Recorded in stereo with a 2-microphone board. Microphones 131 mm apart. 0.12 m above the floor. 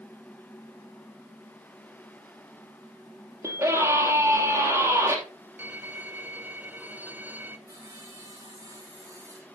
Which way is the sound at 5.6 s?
15° right (ahead or behind).